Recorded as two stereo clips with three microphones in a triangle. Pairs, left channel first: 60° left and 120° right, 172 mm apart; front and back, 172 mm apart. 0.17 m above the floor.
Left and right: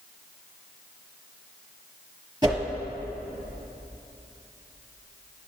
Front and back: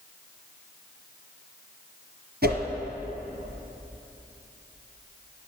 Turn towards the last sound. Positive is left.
turn(degrees=175)